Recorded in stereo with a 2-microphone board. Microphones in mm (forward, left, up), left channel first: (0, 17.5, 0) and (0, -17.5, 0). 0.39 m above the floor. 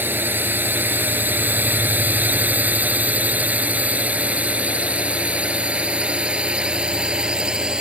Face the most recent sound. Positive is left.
turn(degrees=-25)  # may be behind; listen again after turning